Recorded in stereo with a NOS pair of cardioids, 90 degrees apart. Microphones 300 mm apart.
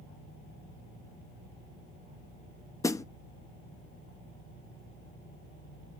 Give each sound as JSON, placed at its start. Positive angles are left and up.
{"t": 2.8, "sound": "a snare drum", "azimuth_deg": 10, "distance_m": 0.7}